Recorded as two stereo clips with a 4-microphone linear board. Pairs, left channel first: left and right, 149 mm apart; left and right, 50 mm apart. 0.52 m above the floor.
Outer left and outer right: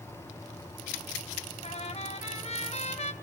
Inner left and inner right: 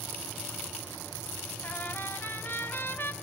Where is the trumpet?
50° left (ahead or behind), 3.5 m.